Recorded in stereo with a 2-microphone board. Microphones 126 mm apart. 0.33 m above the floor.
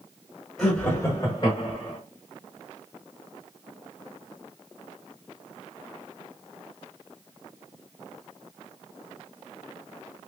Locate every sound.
0.6 s laughter: centre (ahead or behind), 1.4 m; by 2.0 s 45° left (ahead or behind), 1.9 m